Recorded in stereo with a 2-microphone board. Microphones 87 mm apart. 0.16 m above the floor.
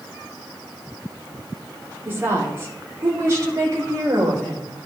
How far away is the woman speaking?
About 4.5 m.